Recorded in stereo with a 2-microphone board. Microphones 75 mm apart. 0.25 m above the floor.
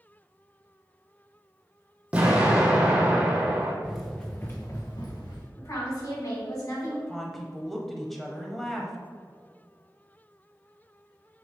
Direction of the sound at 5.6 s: 50° left (ahead or behind).